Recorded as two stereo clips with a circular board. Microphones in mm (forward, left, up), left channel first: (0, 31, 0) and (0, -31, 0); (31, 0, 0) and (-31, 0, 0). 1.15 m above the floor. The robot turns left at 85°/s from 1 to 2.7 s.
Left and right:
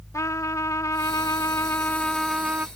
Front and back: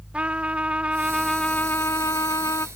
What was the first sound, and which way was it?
A trumpet, 110° left.